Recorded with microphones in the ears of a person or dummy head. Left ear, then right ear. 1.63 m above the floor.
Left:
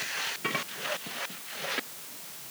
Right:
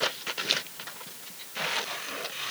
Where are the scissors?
No scissors in this recording.